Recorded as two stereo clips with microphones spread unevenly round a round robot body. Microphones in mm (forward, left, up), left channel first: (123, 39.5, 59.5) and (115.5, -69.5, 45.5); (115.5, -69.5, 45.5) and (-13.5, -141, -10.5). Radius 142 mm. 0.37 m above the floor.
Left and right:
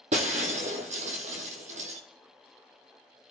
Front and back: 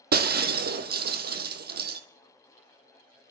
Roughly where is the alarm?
I don't hear an alarm.